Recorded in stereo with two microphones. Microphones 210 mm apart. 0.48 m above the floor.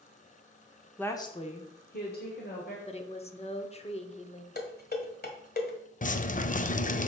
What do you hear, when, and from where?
1.0 s a woman speaking: 5° left (ahead or behind), 1.0 m; by 2.8 s 45° left (ahead or behind), 2 m
2.9 s a woman speaking: 30° left (ahead or behind), 0.9 m
4.5 s dishes clattering: 45° left (ahead or behind), 1.4 m
6.0 s dripping: 35° left (ahead or behind), 0.5 m